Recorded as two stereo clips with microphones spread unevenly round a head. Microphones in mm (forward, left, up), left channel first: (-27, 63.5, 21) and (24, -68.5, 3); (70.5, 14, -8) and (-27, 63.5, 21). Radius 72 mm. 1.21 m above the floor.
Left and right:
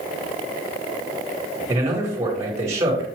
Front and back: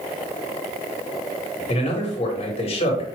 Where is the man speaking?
Straight ahead, 1.6 m.